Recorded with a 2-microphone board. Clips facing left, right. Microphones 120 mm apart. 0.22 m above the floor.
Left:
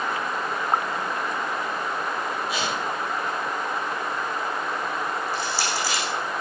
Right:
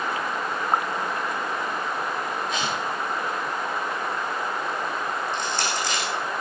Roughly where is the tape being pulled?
Centre.